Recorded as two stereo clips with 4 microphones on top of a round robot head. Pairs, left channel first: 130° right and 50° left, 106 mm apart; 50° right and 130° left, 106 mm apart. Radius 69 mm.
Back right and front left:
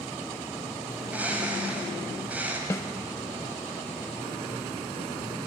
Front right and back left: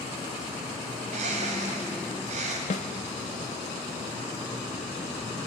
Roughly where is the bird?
Behind left.